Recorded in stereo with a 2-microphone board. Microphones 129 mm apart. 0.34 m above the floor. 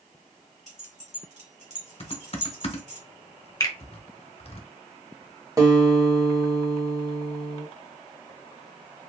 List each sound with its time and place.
0.7 s keys jangling: 60° right (ahead or behind), 1.2 m
2.0 s typing on a keyboard: 45° left (ahead or behind), 0.6 m
3.6 s a finger snap: 25° left (ahead or behind), 0.8 m
5.6 s a guitar: 25° right (ahead or behind), 1.0 m